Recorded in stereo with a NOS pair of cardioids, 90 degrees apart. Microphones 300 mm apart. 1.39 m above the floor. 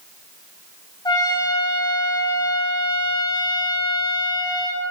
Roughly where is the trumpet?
Ahead.